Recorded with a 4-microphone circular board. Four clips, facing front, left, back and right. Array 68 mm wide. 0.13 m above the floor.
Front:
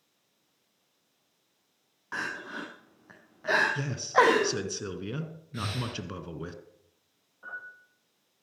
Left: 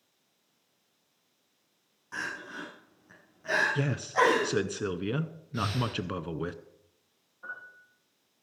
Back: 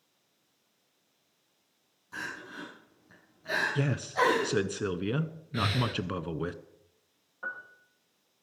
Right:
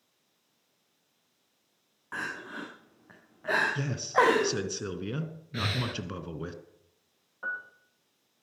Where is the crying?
25° right, 4.5 m.